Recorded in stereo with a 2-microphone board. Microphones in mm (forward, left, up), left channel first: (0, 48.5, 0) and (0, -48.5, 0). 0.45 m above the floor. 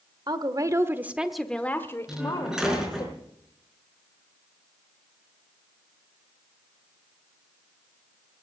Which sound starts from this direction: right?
A woman speaking, at 0.3 s.